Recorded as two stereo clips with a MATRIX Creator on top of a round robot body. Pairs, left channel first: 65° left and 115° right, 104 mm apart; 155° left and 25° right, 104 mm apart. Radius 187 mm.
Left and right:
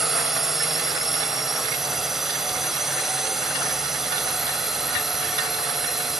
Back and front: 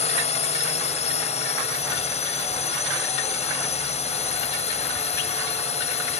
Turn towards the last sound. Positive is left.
turn(degrees=160)